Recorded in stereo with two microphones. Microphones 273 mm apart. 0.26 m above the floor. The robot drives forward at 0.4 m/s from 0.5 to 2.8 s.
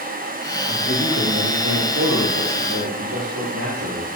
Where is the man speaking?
75° right (ahead or behind), 6 m; by 4.1 s 80° right, 6 m.